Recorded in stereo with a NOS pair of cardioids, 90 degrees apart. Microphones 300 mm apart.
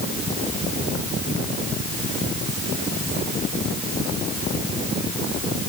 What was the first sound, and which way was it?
Only background noise.